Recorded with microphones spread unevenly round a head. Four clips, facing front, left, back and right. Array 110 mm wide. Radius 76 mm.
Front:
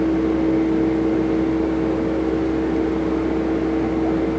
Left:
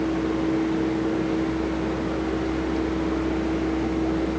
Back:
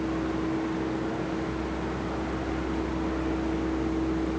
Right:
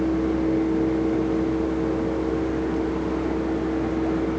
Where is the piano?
I don't hear a piano.